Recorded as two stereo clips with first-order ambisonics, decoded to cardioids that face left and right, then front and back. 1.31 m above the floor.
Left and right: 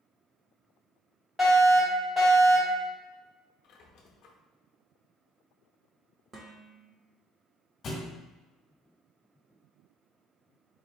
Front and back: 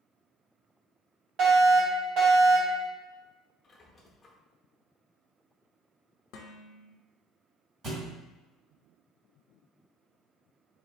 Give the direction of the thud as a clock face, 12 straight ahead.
7 o'clock.